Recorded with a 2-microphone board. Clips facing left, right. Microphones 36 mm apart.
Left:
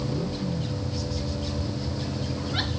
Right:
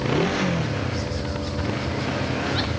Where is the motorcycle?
85° right.